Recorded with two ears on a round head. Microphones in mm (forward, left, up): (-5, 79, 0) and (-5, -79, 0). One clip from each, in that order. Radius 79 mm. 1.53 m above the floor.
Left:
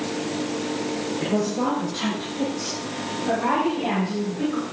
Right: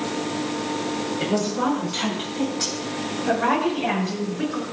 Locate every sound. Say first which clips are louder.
1.2 s a woman speaking: right 1 dB; 65° right (ahead or behind), 8 m; by 4.6 s 80° right, 9.5 m